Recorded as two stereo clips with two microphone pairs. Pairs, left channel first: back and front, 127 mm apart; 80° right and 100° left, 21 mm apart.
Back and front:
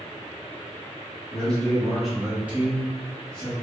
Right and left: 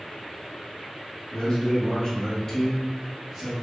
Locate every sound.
1.3 s a man speaking: 100° right, 1.1 m; by 3.5 s 40° left, 0.9 m